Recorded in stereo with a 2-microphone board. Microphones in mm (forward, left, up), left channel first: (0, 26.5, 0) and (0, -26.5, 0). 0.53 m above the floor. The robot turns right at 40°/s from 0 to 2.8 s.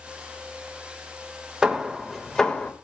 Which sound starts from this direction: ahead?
Hammering, at 1.6 s.